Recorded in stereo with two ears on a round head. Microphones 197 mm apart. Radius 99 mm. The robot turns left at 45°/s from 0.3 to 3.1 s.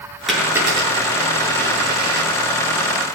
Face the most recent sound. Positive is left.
turn(degrees=-125)